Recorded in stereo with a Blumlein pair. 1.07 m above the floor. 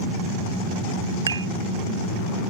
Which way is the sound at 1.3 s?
70° right.